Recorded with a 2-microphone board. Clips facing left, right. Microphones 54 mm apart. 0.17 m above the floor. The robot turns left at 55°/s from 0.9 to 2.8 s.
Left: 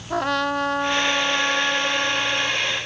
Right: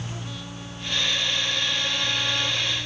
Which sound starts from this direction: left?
A trumpet, at 0.1 s.